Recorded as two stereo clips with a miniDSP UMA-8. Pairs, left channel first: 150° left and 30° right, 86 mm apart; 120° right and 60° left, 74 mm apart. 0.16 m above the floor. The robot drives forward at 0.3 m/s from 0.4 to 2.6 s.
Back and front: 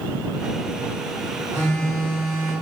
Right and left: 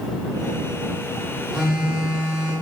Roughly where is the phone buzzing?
Behind.